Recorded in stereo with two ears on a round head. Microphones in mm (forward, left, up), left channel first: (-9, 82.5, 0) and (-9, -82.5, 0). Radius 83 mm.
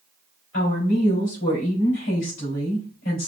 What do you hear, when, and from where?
0.5 s a woman speaking: 80° left, 3 m